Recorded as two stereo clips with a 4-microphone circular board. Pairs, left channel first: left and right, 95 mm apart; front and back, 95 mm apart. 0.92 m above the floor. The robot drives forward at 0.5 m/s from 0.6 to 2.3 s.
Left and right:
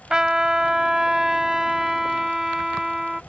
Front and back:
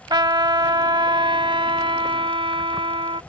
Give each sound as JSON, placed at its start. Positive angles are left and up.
{"t": 0.1, "sound": "a trumpet", "azimuth_deg": -170}